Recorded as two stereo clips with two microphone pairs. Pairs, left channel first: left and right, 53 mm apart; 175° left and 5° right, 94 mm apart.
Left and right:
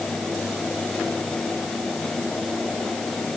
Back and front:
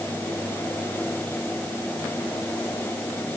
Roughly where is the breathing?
No breathing in this recording.